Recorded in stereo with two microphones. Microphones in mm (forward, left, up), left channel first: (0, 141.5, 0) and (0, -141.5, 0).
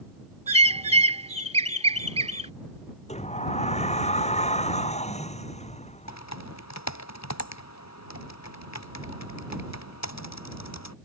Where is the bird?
20° right (ahead or behind).